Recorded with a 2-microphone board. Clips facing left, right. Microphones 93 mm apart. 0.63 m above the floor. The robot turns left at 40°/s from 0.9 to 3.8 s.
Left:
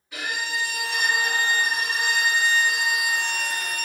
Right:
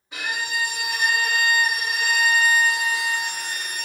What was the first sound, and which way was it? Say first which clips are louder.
A violin: right 1 dB; 40° right.